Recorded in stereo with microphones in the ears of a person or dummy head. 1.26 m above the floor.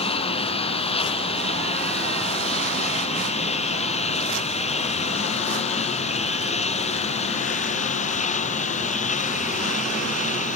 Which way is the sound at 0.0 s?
40° left (ahead or behind).